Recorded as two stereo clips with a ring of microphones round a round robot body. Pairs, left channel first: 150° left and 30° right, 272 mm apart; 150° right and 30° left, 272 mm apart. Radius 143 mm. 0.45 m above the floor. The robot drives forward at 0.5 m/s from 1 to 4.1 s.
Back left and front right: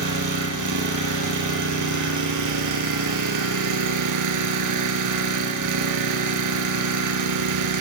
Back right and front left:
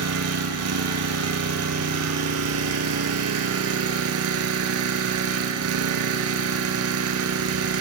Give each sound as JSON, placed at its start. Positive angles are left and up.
{"t": 0.0, "sound": "an engine running", "azimuth_deg": -5, "distance_m": 4.5}